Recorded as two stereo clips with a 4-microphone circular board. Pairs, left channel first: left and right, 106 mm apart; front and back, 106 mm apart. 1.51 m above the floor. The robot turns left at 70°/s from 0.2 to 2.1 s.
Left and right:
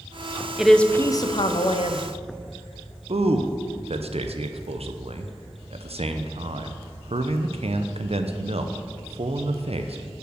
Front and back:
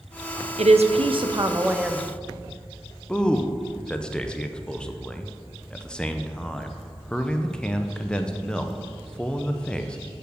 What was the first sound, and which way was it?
A woman speaking, 175° right.